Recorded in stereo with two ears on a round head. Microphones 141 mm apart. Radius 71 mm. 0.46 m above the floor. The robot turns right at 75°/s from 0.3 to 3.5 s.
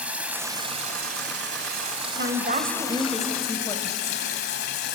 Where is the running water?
170° right, 1.9 m; by 5.0 s 70° left, 1.9 m.